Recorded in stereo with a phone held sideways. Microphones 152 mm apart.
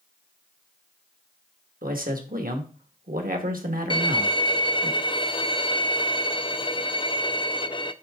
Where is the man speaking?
80° right, 1.7 m.